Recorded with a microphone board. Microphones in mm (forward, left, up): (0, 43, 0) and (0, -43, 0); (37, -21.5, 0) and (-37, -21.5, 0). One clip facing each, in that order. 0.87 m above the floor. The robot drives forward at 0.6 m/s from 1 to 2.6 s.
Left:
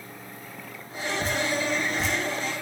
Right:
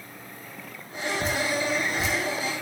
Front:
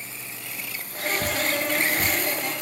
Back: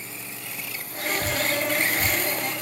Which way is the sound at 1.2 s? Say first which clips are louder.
Even, back 1 dB; straight ahead.